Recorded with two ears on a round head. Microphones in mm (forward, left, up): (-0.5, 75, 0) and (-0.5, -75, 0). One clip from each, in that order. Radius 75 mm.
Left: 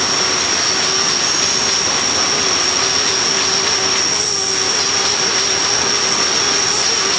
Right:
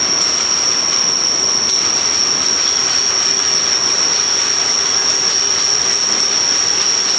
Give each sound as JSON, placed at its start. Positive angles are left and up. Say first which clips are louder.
{"t": 0.0, "sound": "an insect", "louder": "right 1 dB", "side_deg": -25}